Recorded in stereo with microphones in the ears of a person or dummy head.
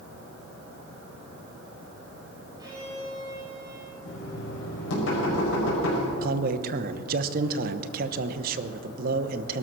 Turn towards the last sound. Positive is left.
turn(degrees=-55)  # may be behind; listen again after turning